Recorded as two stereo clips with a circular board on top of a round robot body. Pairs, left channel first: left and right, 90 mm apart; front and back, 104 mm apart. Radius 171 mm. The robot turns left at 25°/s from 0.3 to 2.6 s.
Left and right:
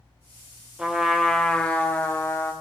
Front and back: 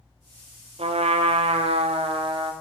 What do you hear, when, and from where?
0.8 s a trumpet: 170° right, 1.4 m; by 2.5 s 145° left, 1.4 m